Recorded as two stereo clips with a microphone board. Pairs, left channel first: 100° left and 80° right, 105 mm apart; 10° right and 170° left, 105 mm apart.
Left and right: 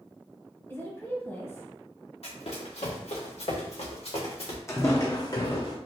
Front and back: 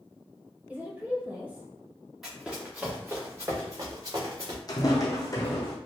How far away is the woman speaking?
About 0.9 m.